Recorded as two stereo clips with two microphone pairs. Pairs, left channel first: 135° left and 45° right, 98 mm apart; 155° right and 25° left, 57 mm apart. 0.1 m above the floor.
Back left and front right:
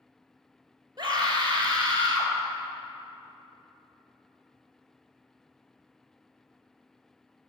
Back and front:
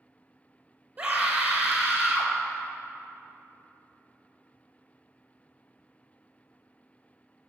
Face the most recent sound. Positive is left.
turn(degrees=-10)